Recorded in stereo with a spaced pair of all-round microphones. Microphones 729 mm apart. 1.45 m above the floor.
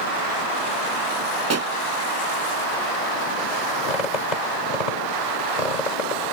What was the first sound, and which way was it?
A pop, 20° right (ahead or behind).